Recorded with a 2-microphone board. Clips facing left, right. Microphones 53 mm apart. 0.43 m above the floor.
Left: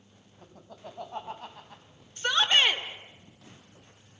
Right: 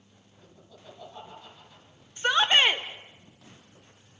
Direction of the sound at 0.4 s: 70° left (ahead or behind).